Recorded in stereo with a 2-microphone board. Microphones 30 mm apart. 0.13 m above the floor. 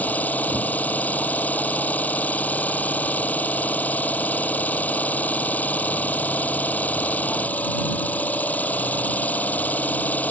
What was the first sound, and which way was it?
An engine running, 55° left (ahead or behind).